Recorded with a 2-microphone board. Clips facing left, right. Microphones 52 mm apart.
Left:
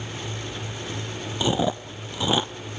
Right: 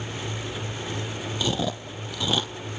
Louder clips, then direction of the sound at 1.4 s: Left 5 dB; 20° left (ahead or behind).